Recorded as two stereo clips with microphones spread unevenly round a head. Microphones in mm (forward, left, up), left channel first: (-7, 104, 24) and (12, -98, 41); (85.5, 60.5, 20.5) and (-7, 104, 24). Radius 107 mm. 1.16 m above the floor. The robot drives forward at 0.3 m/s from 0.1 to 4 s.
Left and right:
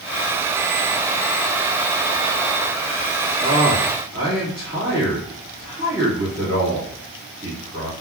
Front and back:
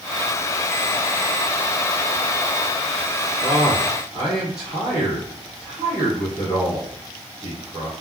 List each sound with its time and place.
3.4 s a man speaking: 150° right, 1.7 m; by 7.9 s 155° right, 1.9 m